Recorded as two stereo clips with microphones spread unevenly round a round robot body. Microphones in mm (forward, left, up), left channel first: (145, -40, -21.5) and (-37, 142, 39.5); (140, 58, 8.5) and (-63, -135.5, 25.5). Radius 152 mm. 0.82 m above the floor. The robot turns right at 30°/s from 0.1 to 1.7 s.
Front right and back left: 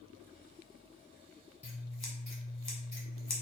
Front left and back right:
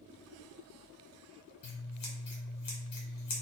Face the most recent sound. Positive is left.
turn(degrees=25)